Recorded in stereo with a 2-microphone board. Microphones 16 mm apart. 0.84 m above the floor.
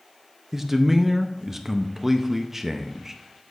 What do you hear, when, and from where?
0.5 s a man speaking: 20° right (ahead or behind), 0.6 m